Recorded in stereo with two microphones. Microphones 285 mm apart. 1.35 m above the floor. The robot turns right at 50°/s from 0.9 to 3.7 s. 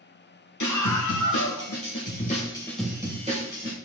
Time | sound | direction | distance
0.6 | a scream | 85° left | 1.7 m